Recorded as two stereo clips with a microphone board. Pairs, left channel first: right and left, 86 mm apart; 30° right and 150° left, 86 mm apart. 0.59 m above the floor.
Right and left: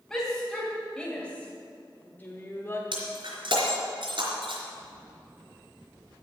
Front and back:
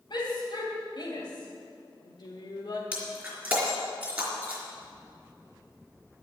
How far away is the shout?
About 3 m.